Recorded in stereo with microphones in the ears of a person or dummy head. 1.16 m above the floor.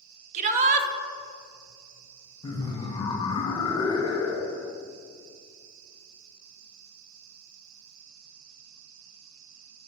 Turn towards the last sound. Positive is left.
turn(degrees=15)  # may be behind; listen again after turning